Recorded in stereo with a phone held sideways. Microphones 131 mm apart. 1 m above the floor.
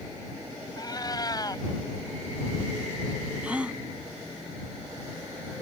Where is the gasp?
10° right (ahead or behind).